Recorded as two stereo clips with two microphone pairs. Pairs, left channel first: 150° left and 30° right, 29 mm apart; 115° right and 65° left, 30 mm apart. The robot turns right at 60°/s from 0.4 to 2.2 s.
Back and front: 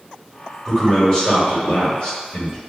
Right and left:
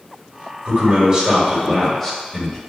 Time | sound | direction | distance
0.7 | a man speaking | 90° left | 1.6 m